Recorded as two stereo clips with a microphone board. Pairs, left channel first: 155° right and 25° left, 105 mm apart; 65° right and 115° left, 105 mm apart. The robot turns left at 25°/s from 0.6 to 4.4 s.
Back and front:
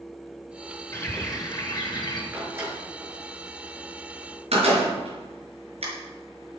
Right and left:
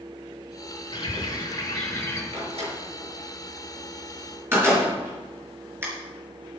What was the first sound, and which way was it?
A bird, 95° right.